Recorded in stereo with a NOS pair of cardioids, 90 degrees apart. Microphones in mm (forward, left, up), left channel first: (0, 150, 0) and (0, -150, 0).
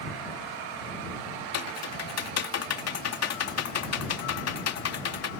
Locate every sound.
1.5 s typing on a keyboard: 55° left